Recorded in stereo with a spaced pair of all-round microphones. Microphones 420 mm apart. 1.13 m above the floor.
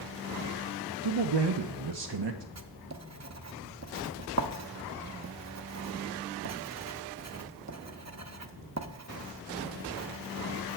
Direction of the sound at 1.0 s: 75° right (ahead or behind).